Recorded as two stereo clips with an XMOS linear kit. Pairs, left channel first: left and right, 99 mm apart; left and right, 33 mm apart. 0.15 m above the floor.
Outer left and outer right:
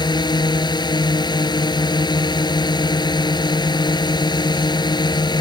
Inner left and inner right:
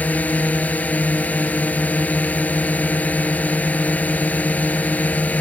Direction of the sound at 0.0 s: 45° left (ahead or behind).